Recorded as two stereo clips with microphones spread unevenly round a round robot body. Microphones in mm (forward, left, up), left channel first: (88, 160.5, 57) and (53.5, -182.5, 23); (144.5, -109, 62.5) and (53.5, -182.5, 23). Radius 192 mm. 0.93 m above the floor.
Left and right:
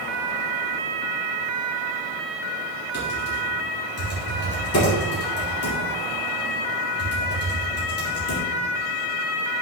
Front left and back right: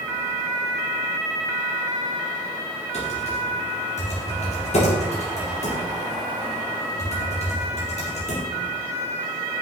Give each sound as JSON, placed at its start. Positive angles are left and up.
{"t": 2.9, "sound": "typing on a keyboard", "azimuth_deg": 40, "distance_m": 4.5}